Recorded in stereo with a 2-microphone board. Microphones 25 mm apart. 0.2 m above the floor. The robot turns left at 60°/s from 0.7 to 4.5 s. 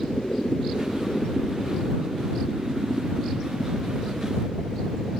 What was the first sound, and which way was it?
A helicopter, 65° left.